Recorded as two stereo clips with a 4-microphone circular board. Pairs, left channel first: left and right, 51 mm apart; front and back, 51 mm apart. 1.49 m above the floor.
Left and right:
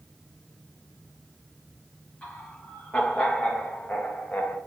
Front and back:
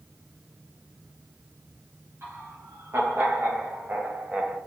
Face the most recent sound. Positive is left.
turn(degrees=115)